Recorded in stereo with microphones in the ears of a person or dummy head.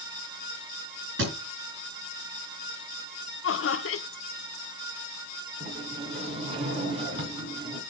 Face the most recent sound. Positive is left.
turn(degrees=-40)  # may be behind; listen again after turning